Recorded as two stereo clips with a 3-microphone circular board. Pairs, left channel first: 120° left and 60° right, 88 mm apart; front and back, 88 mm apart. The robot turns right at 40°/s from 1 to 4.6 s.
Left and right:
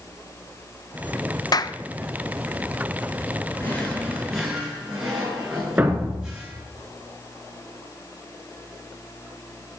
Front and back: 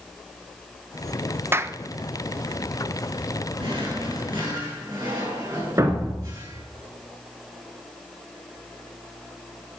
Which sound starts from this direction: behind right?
A thud, at 5.8 s.